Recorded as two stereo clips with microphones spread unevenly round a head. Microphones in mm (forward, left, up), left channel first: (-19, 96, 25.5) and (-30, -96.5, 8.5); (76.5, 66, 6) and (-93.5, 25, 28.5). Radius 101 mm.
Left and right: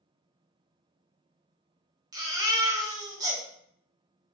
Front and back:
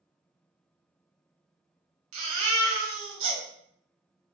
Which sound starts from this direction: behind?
A baby crying, at 2.1 s.